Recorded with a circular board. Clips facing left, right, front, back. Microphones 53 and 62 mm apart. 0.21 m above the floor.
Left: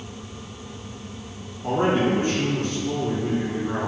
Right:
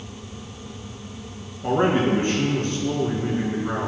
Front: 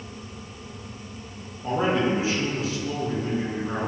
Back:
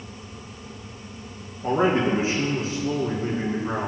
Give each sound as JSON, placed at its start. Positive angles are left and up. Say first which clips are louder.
{"t": 1.6, "sound": "a man speaking", "louder": "right 1 dB, back 2 dB", "azimuth_deg": -130, "distance_m": 2.5}